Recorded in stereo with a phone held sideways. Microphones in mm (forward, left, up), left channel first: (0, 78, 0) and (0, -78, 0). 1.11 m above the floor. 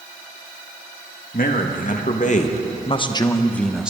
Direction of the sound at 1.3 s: 65° left (ahead or behind).